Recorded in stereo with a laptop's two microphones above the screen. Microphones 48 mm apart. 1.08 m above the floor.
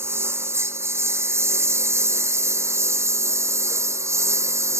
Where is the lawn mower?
60° right (ahead or behind); by 4.8 s 80° right.